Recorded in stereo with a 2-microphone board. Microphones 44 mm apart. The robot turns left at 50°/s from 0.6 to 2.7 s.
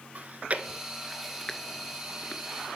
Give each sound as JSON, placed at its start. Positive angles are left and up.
{"t": 0.1, "sound": "chewing", "side_deg": -35, "distance_m": 0.5}